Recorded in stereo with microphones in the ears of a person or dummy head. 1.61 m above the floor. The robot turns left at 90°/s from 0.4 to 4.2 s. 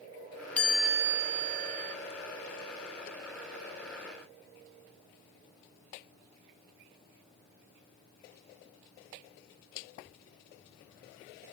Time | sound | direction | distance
0.6 | a chime | 15° left | 1.1 m